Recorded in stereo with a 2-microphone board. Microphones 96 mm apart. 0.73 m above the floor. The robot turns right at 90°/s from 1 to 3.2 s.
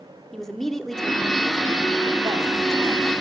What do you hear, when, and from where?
0.3 s a woman speaking: 175° left, 1.3 m; by 3.1 s 5° left, 1.3 m